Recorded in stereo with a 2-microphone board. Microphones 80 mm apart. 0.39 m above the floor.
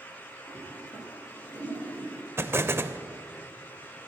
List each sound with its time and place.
0.5 s a toilet flushing: 35° right (ahead or behind), 4 m
2.4 s an explosion: 30° right (ahead or behind), 0.5 m